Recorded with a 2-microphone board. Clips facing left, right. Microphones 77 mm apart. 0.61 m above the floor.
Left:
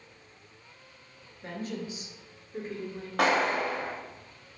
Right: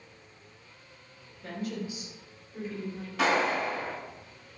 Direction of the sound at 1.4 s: 35° left (ahead or behind).